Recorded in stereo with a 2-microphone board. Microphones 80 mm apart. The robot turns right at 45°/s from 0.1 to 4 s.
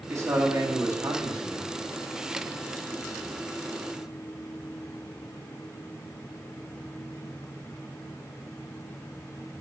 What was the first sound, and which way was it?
A man speaking, 115° right.